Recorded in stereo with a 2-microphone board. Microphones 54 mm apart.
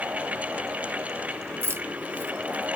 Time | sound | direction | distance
1.6 | keys jangling | 45° right (ahead or behind) | 0.6 m